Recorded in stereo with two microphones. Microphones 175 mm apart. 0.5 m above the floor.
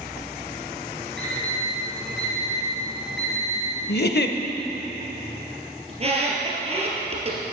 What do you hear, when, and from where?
1.2 s an alarm clock: 80° right, 3 m
3.9 s a giggle: 70° left (ahead or behind), 0.6 m
5.9 s a squeak: 35° right (ahead or behind), 2.0 m